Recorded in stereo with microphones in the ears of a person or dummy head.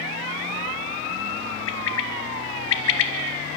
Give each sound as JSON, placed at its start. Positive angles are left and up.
{"t": 1.7, "sound": "a bird", "side_deg": 70, "distance_m": 1.5}